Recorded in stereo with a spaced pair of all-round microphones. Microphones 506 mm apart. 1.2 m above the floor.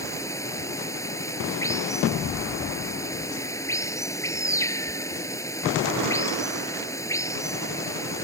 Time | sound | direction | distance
0.0 | running water | 5° left (ahead or behind) | ?